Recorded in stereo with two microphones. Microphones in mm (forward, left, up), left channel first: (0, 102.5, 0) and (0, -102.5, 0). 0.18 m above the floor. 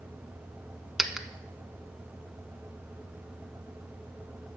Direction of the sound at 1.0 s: 5° right (ahead or behind).